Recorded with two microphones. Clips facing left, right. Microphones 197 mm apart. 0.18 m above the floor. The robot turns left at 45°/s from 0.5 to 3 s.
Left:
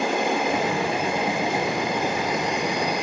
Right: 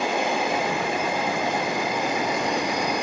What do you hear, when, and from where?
0.0 s an insect: 55° left, 3 m; by 3.0 s 60° right, 3 m